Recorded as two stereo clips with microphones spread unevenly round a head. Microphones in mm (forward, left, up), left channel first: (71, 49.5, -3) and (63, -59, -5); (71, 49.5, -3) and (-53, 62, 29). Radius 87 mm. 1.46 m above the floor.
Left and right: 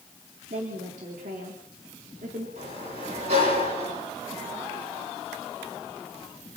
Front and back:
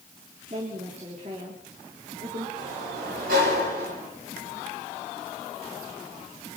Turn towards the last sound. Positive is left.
turn(degrees=-150)